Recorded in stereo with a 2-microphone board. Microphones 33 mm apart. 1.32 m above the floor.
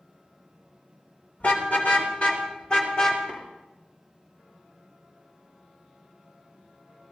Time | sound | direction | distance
1.4 | a car horn | 65° left (ahead or behind) | 3 m
3.3 | tapping | 60° left (ahead or behind) | 8.5 m